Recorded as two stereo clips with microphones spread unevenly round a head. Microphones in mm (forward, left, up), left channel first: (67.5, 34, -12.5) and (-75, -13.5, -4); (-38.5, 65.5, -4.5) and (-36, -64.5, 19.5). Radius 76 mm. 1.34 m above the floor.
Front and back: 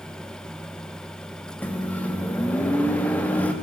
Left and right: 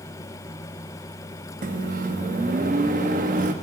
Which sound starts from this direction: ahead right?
A microwave, at 1.6 s.